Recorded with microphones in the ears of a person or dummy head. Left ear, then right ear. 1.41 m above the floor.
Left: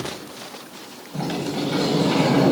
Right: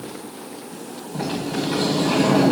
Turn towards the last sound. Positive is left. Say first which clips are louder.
# even
turn(degrees=5)  # may be behind; listen again after turning